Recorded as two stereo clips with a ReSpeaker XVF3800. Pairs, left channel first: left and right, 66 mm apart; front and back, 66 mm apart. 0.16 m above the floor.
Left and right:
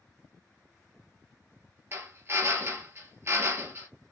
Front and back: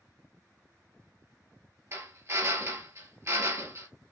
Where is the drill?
140° right, 1.2 m.